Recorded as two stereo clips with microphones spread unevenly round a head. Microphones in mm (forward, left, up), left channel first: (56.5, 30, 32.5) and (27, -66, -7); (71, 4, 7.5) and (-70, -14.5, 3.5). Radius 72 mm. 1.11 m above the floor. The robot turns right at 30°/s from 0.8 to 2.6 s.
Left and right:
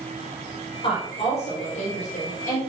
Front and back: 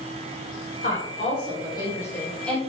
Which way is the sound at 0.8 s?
40° left.